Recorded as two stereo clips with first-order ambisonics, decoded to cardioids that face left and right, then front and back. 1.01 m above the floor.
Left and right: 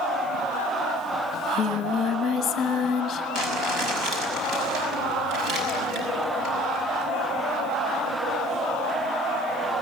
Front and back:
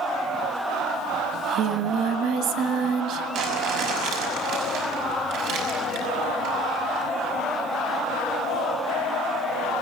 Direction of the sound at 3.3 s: 140° right.